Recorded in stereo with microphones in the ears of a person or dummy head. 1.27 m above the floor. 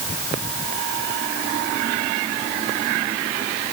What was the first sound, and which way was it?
Only background noise.